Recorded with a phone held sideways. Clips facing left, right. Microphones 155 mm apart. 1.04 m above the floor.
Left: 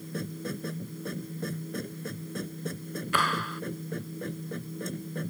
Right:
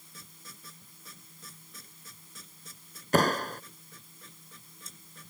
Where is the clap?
45° right (ahead or behind).